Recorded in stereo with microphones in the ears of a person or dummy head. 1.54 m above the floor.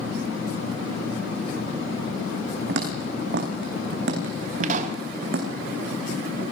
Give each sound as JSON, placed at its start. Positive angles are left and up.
{"t": 2.7, "sound": "footsteps", "side_deg": -70, "distance_m": 4.5}
{"t": 4.6, "sound": "a pop", "side_deg": -50, "distance_m": 1.7}